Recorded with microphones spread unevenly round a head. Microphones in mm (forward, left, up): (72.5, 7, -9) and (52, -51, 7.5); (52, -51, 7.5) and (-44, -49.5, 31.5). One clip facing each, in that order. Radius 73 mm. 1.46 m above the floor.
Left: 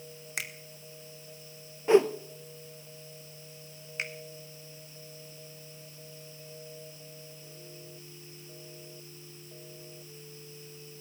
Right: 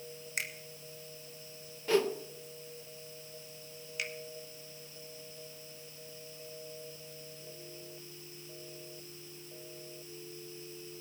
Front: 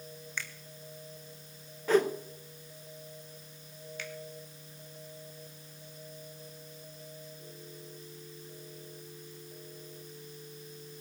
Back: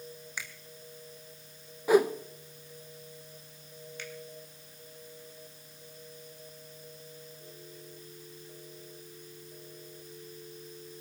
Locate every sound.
0.4 s a finger snap: 100° left, 0.7 m
1.9 s a whoosh: 150° left, 0.6 m
4.0 s a finger snap: 15° left, 1.8 m